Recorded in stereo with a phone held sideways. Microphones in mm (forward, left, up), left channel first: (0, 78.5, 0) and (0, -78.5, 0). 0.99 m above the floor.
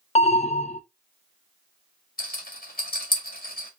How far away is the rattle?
About 2 m.